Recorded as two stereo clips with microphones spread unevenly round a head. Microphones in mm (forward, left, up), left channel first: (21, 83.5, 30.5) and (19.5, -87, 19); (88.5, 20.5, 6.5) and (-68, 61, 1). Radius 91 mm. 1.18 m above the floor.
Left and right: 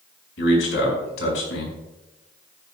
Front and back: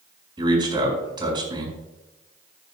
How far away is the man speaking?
About 5 m.